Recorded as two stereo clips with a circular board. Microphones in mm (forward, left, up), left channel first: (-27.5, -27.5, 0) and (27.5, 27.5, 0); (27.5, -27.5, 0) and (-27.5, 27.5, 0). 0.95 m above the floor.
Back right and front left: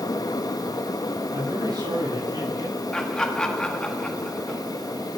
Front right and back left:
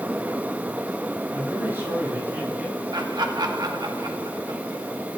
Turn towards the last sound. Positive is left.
turn(degrees=145)